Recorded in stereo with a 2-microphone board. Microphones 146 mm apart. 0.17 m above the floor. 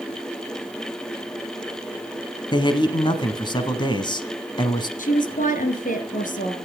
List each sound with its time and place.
2.5 s a man speaking: 30° left (ahead or behind), 1.3 m
5.0 s a woman speaking: 60° left (ahead or behind), 2 m